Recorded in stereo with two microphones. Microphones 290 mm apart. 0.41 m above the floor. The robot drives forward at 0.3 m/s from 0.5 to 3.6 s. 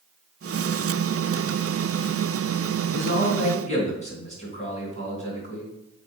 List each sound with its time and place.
2.9 s a man speaking: 25° left (ahead or behind), 3.5 m